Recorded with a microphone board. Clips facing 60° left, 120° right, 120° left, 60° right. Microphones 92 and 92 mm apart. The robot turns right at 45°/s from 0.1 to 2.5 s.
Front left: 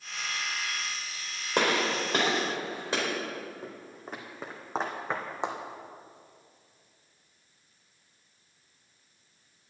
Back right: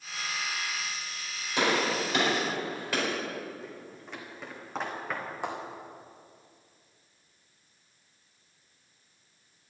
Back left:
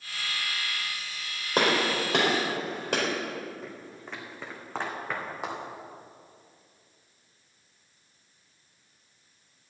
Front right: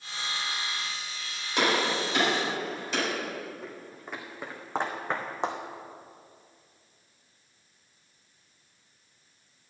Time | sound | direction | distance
1.6 | a gunshot | 80° left | 4 m
3.6 | footsteps | 25° left | 2.5 m